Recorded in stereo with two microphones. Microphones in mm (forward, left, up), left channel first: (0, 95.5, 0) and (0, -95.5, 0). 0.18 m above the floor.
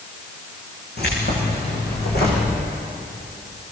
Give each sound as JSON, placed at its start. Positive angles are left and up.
{"t": 1.0, "sound": "keys jangling", "side_deg": 60, "distance_m": 9.5}